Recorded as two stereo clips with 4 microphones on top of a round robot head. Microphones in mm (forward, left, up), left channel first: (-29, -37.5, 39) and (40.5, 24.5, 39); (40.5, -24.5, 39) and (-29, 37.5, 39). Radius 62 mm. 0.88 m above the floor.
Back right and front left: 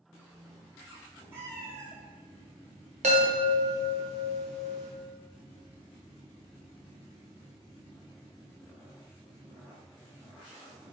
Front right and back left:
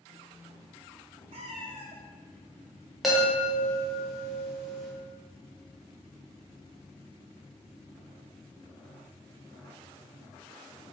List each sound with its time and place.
1.3 s a cat meowing: 110° left, 0.7 m
3.0 s a chime: 50° left, 0.8 m